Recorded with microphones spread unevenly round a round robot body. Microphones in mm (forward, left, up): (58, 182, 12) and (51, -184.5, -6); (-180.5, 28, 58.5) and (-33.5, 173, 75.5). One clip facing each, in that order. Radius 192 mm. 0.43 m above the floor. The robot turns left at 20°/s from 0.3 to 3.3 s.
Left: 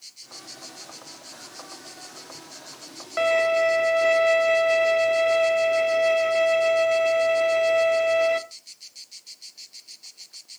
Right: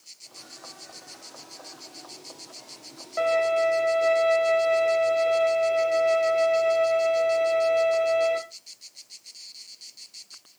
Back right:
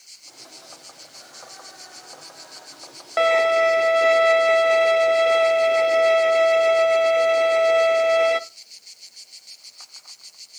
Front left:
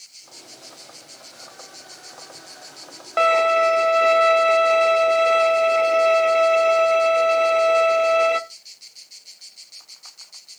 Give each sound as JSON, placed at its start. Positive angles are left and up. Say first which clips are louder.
{"t": 3.2, "sound": "a violin", "louder": "left 2 dB, back right 1 dB", "azimuth_deg": 145, "distance_m": 0.9}